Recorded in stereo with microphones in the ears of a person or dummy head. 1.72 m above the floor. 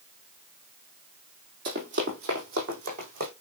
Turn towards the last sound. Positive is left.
turn(degrees=-50)  # may be behind; listen again after turning